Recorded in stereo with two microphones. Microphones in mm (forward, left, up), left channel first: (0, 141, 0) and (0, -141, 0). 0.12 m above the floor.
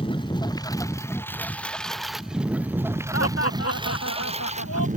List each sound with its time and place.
0.0 s a lawn mower: 15° left (ahead or behind); by 5.0 s 30° right (ahead or behind)
3.1 s laughter: 55° left (ahead or behind)